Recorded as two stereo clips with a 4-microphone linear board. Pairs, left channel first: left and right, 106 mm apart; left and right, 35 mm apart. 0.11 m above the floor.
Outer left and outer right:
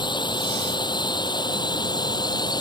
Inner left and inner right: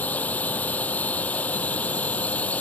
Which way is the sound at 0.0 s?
45° left (ahead or behind).